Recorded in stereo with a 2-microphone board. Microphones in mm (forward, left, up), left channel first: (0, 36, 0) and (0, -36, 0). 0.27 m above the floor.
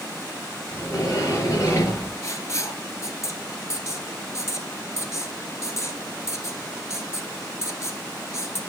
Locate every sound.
0.7 s a sliding door: 40° left (ahead or behind), 4.5 m
2.2 s writing: 40° left (ahead or behind), 1.1 m